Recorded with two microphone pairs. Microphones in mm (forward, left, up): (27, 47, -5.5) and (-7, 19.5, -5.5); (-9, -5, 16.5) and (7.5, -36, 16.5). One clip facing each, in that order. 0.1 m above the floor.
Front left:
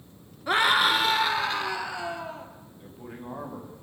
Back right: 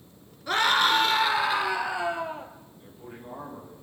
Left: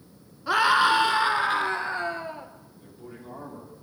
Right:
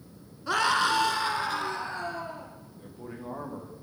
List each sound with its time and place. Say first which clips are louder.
0.5 s a scream: front left 1 dB, left 5 dB; 70° left, 1.2 m; by 2.5 s 155° left, 2 m
2.8 s a man speaking: front left 3 dB, right 3 dB; 20° right, 9 m